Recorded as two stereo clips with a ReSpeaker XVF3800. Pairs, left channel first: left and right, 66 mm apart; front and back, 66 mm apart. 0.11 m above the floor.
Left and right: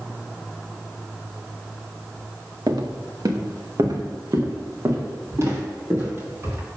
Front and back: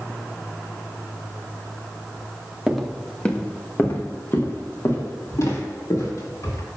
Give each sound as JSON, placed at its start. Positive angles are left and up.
{"t": 2.7, "sound": "footsteps", "azimuth_deg": -95, "distance_m": 1.4}